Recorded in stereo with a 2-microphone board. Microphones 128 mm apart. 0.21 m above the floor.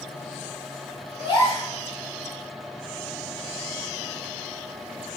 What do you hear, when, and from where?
1.2 s a gasp: 35° left (ahead or behind), 1.2 m